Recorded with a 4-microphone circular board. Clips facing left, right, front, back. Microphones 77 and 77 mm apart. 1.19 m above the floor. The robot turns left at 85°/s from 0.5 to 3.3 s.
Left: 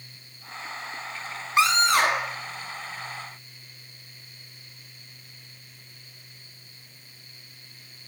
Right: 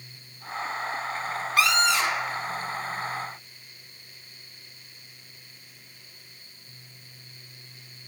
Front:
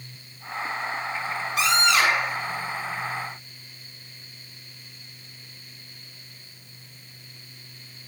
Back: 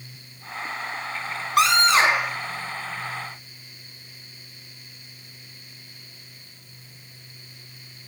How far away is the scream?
About 3 m.